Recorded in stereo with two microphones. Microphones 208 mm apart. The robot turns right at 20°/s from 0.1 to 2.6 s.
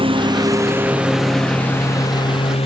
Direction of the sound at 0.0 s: 25° right.